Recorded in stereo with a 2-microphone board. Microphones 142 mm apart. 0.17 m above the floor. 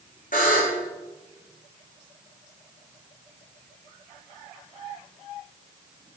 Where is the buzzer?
75° left (ahead or behind), 4.5 m.